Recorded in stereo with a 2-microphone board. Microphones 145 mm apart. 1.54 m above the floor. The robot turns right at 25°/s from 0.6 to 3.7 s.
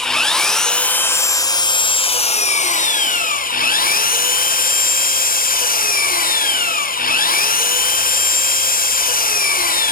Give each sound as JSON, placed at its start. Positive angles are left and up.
{"t": 0.0, "sound": "an engine running", "azimuth_deg": 5, "distance_m": 1.0}